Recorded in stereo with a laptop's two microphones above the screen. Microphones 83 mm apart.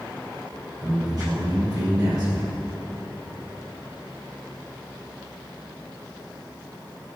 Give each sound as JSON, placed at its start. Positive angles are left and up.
{"t": 0.8, "sound": "a man speaking", "side_deg": -50, "distance_m": 4.5}